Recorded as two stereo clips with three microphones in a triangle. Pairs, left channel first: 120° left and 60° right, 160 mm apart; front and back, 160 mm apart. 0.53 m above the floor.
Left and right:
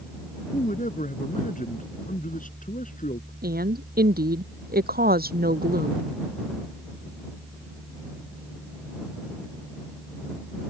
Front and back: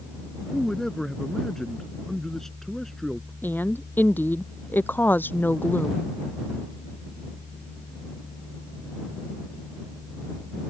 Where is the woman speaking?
80° right.